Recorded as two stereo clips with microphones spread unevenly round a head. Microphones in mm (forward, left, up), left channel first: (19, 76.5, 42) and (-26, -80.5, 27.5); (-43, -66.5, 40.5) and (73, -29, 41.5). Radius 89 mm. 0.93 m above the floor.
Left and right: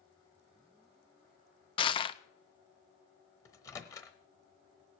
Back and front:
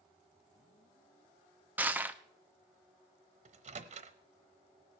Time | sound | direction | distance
1.8 | crushing | 75° left | 0.6 m
3.5 | a microwave | straight ahead | 0.9 m